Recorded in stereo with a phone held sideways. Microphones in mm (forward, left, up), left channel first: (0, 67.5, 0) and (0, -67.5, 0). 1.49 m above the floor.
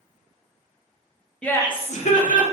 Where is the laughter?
5° left (ahead or behind), 0.6 m; by 2.4 s 85° left, 1.0 m.